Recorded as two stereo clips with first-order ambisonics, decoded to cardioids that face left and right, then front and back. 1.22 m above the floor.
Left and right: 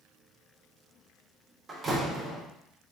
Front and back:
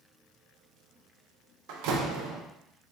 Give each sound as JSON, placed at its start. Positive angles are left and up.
{"t": 1.7, "sound": "a door slam", "azimuth_deg": -160, "distance_m": 0.8}